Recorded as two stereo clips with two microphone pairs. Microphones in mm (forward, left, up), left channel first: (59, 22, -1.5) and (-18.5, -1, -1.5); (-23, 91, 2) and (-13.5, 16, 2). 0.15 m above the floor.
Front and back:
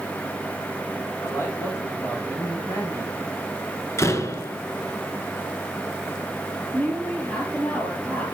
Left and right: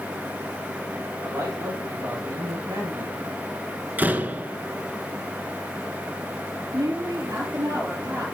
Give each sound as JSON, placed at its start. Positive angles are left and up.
{"t": 1.2, "sound": "a man speaking", "azimuth_deg": -35, "distance_m": 6.0}
{"t": 4.0, "sound": "a door slam", "azimuth_deg": -20, "distance_m": 1.3}
{"t": 6.7, "sound": "a woman speaking", "azimuth_deg": -55, "distance_m": 3.0}